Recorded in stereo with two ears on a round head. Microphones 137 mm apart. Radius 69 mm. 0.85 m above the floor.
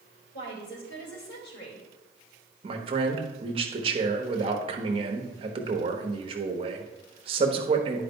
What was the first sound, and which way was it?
A woman speaking, 80° left.